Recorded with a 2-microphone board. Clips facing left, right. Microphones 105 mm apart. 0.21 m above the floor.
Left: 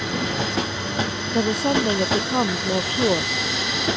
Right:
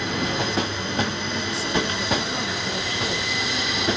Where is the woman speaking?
60° left (ahead or behind); by 3.3 s 45° left (ahead or behind).